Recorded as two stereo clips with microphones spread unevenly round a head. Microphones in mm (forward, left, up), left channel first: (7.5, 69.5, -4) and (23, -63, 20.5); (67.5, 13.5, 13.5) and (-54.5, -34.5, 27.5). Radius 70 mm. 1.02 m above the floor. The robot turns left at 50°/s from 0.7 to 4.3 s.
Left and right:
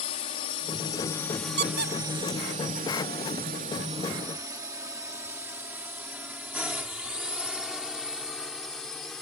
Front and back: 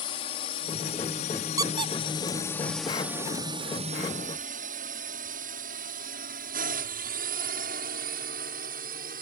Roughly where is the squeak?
Right.